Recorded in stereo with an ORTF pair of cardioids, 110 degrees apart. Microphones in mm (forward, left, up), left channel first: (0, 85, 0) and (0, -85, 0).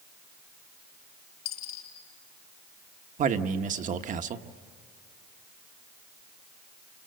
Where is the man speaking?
50° right, 1.3 m.